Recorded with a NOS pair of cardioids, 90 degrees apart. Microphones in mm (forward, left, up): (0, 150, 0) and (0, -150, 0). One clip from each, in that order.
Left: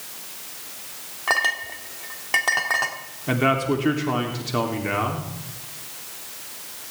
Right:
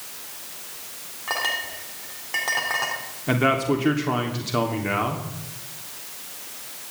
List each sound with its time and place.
1.3 s a clink: 45° left, 2.5 m
3.3 s a man speaking: 10° right, 3 m